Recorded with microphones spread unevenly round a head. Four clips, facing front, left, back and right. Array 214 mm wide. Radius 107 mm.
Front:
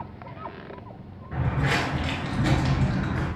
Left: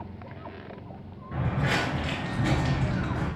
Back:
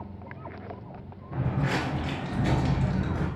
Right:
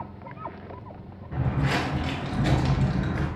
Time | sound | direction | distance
1.3 | footsteps | 40° left | 1.4 m